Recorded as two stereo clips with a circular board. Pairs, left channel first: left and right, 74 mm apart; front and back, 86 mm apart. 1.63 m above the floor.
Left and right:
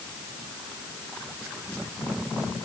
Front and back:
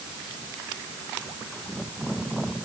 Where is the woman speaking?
No woman speaking in this recording.